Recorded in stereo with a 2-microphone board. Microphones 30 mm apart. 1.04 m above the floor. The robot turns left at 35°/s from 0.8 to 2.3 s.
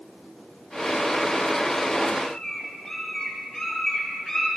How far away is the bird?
About 2.5 m.